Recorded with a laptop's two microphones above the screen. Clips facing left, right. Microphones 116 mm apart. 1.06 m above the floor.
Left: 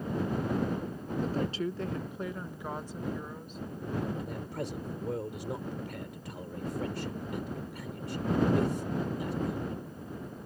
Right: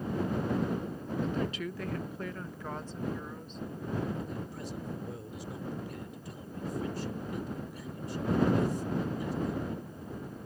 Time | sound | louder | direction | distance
1.2 | a woman speaking | left 3 dB | 40° left (ahead or behind) | ?
4.2 | a man speaking | left 2 dB | 75° left (ahead or behind) | ?